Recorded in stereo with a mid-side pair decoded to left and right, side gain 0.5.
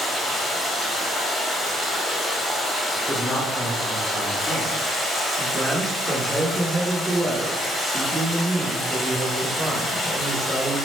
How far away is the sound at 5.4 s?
About 0.9 m.